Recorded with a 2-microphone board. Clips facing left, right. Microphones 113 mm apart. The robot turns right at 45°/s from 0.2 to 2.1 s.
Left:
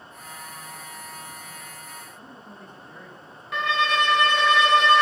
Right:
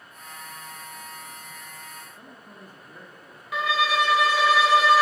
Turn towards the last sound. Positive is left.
turn(degrees=-5)  # may be behind; listen again after turning